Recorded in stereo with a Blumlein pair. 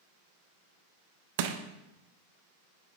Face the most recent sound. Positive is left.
turn(degrees=-50)